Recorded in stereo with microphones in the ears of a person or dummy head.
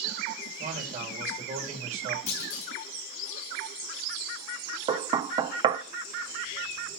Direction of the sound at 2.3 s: 45° left (ahead or behind).